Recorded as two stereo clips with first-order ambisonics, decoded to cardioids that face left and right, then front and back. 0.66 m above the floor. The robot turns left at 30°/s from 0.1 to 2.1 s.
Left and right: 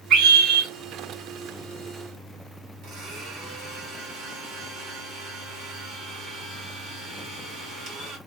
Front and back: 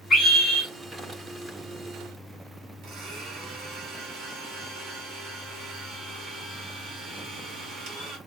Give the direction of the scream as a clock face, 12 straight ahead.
2 o'clock.